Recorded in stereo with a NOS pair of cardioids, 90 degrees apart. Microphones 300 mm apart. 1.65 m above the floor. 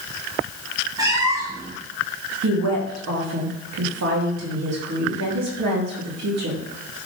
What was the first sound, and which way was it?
A cat meowing, 15° right.